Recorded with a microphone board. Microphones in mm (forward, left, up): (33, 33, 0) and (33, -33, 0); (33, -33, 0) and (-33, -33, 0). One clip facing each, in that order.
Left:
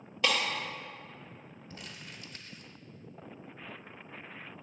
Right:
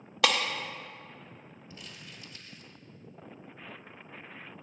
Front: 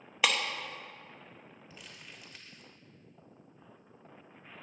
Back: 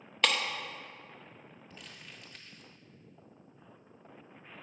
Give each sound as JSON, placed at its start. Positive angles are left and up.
{"t": 0.2, "sound": "breaking glass", "azimuth_deg": -80, "distance_m": 0.6}
{"t": 1.7, "sound": "crumpling", "azimuth_deg": 85, "distance_m": 0.9}